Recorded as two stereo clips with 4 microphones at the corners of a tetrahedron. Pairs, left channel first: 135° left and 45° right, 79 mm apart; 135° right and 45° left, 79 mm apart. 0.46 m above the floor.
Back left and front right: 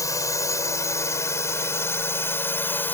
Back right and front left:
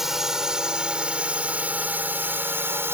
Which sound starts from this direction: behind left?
A drone, at 0.0 s.